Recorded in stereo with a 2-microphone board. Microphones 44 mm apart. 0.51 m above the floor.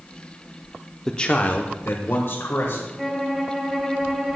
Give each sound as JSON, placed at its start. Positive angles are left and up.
{"t": 1.1, "sound": "a man speaking", "side_deg": 10, "distance_m": 0.6}
{"t": 3.0, "sound": "a violin", "side_deg": -5, "distance_m": 1.9}